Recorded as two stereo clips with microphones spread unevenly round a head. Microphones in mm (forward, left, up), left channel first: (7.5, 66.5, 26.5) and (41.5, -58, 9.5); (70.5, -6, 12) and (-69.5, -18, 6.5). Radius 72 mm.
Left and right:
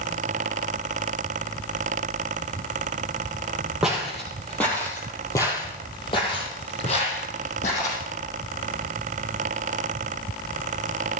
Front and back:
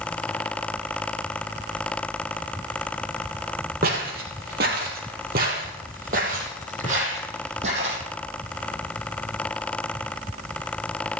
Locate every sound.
3.8 s footsteps: 165° right, 3 m; by 8.0 s 135° left, 4 m